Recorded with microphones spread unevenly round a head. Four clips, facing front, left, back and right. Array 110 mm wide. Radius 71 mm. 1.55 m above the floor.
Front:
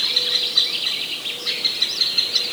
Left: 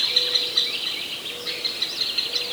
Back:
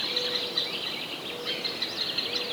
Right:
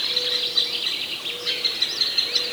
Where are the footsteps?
No footsteps in this recording.